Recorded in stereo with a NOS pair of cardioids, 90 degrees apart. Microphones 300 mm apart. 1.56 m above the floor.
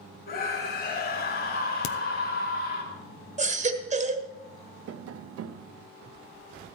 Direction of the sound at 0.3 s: 45° left.